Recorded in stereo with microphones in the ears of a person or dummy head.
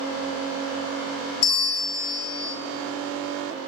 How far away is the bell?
About 1.1 m.